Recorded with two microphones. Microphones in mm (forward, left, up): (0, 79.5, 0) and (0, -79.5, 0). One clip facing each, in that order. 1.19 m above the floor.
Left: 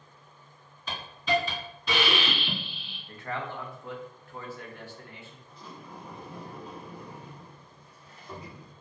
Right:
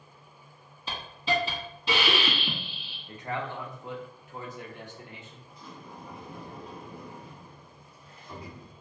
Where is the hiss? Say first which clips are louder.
Left 2 dB; 25° right (ahead or behind), 1.6 m.